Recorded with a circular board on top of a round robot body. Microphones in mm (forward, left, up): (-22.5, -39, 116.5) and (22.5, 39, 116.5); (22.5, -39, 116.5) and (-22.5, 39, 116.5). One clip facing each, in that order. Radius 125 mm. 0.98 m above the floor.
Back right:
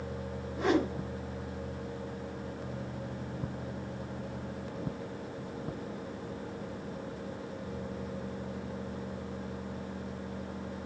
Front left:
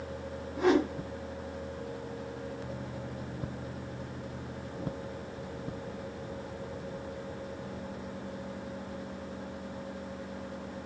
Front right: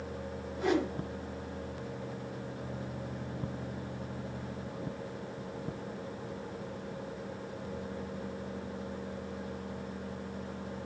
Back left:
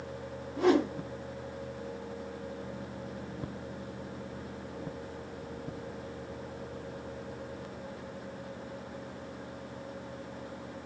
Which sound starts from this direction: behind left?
A whoosh, at 0.6 s.